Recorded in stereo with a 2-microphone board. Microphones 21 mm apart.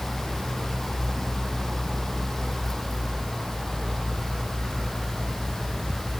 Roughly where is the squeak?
I don't hear a squeak.